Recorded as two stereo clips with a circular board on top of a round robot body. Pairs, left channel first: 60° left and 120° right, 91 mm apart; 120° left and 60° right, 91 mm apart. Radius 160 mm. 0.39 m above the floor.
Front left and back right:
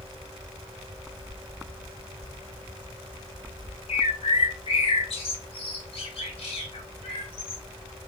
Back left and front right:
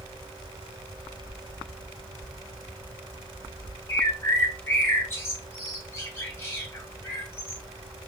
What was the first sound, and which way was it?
A bird, 55° left.